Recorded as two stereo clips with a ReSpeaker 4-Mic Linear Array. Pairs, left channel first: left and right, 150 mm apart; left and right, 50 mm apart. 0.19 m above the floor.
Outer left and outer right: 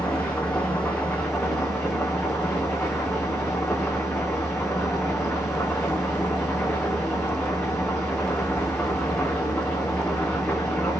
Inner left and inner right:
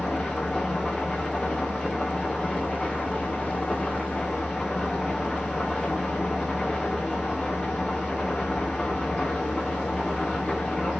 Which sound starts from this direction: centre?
An engine running, at 0.0 s.